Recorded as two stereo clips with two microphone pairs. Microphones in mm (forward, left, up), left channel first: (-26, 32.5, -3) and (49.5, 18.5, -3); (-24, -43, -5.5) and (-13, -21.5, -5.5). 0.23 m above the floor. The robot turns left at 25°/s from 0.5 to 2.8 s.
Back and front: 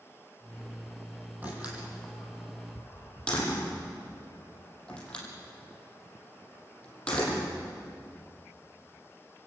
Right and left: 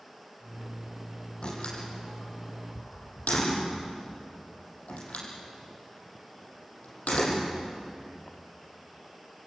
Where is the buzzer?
No buzzer in this recording.